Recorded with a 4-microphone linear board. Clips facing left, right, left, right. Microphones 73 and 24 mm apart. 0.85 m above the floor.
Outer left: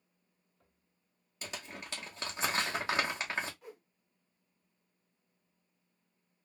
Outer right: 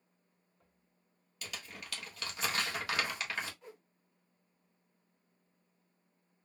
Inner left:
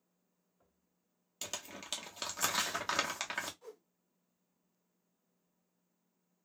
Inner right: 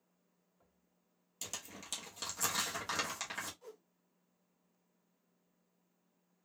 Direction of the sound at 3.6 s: 5° left (ahead or behind).